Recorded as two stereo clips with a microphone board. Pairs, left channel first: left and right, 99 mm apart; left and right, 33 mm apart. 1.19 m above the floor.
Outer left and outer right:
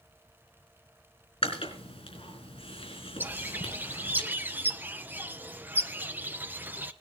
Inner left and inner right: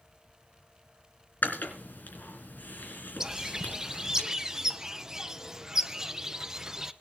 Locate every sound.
1.4 s chewing: 75° left (ahead or behind), 4.5 m
3.2 s a bird: 20° right (ahead or behind), 0.8 m